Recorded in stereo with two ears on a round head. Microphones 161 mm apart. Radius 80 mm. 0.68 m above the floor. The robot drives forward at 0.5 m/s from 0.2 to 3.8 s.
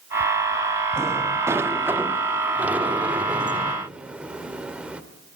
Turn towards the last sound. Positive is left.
turn(degrees=-5)  # may be behind; listen again after turning